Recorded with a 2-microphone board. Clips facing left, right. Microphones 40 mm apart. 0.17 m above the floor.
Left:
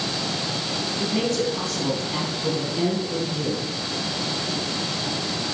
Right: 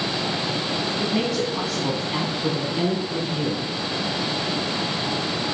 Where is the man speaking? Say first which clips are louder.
Left 2 dB; 5° right (ahead or behind), 1.2 m; by 3.7 s 20° right (ahead or behind), 2 m.